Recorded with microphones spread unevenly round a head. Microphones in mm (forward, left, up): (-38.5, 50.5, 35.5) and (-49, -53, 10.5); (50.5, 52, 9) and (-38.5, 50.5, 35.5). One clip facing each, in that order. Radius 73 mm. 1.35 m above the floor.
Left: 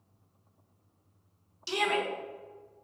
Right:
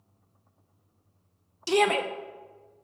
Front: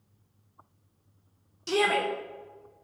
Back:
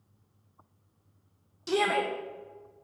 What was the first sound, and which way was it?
A shout, 85° right.